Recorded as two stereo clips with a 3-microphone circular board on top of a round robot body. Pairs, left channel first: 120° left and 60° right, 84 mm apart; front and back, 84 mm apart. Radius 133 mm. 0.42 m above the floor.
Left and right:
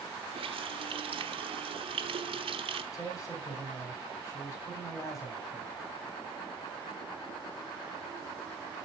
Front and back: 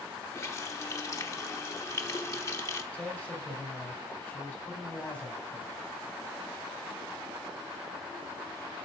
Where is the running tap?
60° right, 1.2 m.